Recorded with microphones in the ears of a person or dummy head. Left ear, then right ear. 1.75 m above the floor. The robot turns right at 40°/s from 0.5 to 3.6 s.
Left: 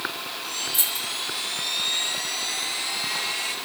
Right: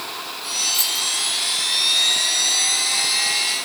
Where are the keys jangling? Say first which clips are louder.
Right 6 dB; 20° left (ahead or behind), 1.4 m; by 1.1 s 10° left (ahead or behind), 1.4 m.